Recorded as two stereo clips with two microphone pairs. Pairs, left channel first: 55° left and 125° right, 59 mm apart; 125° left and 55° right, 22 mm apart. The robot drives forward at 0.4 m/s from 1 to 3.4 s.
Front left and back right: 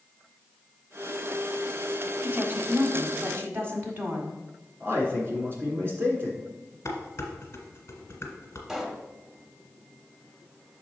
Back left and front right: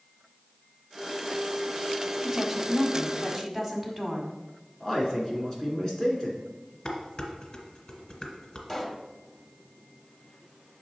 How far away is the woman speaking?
About 1.2 m.